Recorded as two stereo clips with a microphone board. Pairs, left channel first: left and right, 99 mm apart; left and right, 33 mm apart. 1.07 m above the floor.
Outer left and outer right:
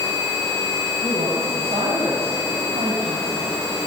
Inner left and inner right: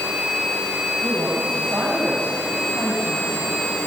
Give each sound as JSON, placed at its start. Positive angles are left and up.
{"t": 1.0, "sound": "a woman speaking", "side_deg": -75, "distance_m": 8.0}